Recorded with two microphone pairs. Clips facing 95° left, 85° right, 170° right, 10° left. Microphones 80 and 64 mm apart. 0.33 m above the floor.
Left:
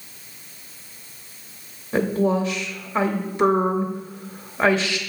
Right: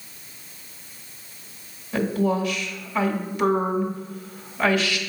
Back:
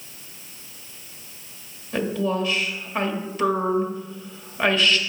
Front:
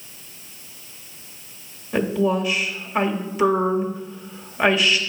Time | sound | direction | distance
1.9 | a woman speaking | 70° left | 1.0 m